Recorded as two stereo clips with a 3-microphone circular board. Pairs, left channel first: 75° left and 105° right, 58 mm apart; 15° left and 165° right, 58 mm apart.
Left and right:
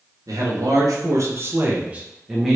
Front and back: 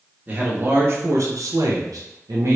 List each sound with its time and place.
0.3 s a man speaking: 105° right, 1.0 m; by 2.6 s 165° left, 0.8 m